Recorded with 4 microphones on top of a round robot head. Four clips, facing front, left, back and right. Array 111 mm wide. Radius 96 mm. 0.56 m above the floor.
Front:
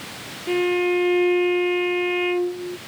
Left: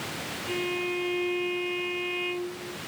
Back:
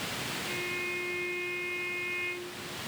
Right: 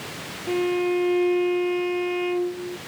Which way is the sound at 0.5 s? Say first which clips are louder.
Right 9 dB, front 22 dB; 30° right.